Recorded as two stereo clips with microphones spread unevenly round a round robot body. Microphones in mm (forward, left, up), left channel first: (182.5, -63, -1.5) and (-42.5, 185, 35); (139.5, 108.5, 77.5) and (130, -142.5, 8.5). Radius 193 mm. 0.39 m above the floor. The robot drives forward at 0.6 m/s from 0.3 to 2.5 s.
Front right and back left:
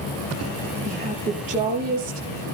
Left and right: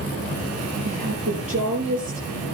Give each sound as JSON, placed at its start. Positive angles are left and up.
{"t": 0.8, "sound": "a woman speaking", "azimuth_deg": -155, "distance_m": 7.0}